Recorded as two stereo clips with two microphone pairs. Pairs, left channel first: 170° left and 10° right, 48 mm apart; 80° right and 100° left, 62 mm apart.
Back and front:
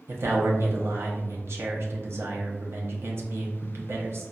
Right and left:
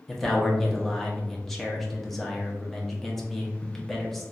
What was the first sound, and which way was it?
A man speaking, 10° left.